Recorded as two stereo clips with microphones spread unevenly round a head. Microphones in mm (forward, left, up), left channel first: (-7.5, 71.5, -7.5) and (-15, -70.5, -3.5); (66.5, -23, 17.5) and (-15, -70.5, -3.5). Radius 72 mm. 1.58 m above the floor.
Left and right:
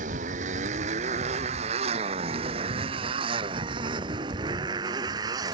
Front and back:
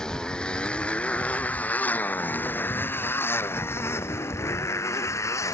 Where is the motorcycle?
50° right; by 5.5 s 25° right.